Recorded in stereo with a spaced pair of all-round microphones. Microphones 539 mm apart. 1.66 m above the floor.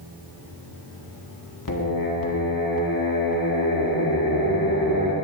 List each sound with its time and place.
1.7 s singing: 40° left (ahead or behind), 1.3 m